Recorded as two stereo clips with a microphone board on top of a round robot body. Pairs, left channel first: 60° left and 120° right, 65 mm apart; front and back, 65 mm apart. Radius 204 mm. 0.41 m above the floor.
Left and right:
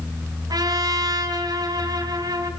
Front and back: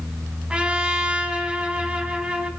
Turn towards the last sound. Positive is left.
turn(degrees=-105)